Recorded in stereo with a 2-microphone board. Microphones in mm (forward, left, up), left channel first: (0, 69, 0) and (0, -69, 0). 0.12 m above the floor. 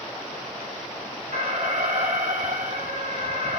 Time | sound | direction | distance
1.3 | an alarm | 60° right (ahead or behind) | 3 m